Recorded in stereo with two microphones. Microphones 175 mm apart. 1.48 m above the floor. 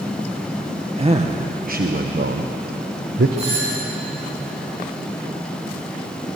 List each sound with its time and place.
1.0 s a man speaking: 30° right (ahead or behind), 1.4 m; by 3.3 s 70° right (ahead or behind), 1.4 m
3.4 s a doorbell: 35° right (ahead or behind), 10 m